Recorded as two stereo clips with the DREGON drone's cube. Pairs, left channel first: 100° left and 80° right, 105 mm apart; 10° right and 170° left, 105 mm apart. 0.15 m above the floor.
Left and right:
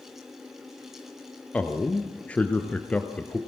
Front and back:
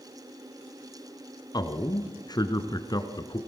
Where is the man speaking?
25° left, 2.0 m.